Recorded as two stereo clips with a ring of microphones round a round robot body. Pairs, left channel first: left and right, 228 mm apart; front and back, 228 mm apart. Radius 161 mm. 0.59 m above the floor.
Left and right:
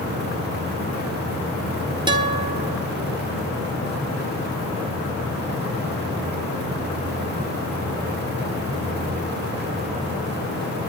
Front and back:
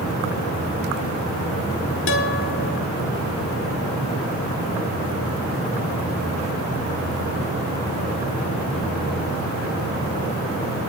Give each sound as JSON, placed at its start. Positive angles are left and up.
{"t": 2.1, "sound": "a guitar", "azimuth_deg": -20, "distance_m": 1.6}